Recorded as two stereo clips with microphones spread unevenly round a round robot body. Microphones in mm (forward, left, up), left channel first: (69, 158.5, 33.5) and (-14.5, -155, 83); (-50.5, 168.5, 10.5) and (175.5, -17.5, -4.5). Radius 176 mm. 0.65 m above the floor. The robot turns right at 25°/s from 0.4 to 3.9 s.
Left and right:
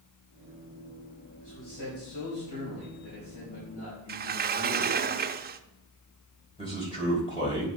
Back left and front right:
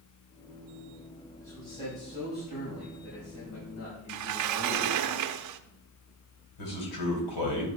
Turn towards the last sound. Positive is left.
turn(degrees=150)